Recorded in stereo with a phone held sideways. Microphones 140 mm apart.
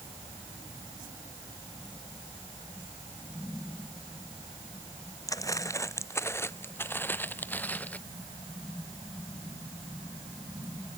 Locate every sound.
5.3 s footsteps: 25° left (ahead or behind); by 8.0 s 10° left (ahead or behind)